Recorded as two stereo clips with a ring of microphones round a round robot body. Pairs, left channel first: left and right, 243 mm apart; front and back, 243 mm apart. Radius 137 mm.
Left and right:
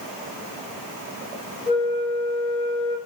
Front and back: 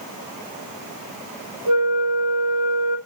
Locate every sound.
1.7 s a flute: 170° right, 3.5 m